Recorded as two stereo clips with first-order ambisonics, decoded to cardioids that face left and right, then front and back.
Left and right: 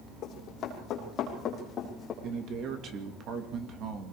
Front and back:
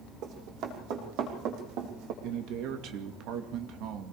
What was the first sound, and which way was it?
Running footsteps, 145° left.